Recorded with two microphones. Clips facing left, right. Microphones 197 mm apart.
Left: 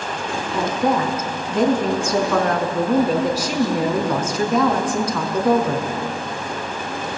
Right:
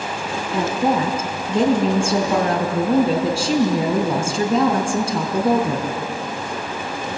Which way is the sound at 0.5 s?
30° right (ahead or behind).